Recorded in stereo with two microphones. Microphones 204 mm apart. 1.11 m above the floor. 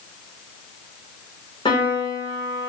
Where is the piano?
25° left (ahead or behind), 5 m.